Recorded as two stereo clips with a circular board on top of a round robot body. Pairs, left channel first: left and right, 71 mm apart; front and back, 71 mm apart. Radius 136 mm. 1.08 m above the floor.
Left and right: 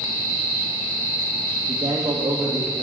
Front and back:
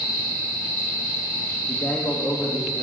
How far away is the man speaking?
About 2 m.